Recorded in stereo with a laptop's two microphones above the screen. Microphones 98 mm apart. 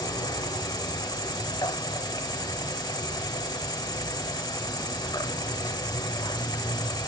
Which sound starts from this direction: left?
An insect, at 0.0 s.